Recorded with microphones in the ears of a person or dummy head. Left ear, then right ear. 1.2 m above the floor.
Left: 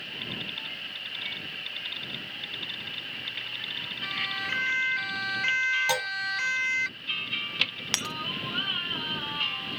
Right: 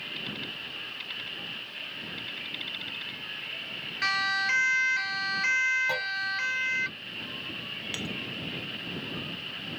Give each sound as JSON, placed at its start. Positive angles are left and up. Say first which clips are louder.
{"t": 4.0, "sound": "a siren", "louder": "right 6 dB", "side_deg": -55}
{"t": 5.9, "sound": "a clunk", "louder": "left 2 dB", "side_deg": 70}
{"t": 7.9, "sound": "breaking glass", "louder": "left 9 dB", "side_deg": 40}